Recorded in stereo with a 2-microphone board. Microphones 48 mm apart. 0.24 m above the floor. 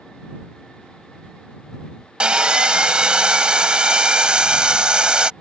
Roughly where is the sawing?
Right.